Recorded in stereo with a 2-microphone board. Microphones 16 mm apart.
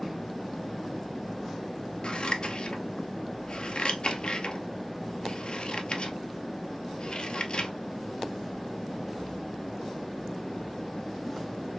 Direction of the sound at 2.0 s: 55° left (ahead or behind).